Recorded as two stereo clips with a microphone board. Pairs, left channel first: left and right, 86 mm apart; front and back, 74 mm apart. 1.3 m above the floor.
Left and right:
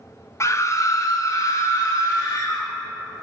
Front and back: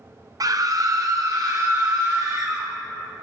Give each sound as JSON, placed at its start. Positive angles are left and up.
{"t": 0.4, "sound": "a scream", "azimuth_deg": 145, "distance_m": 0.7}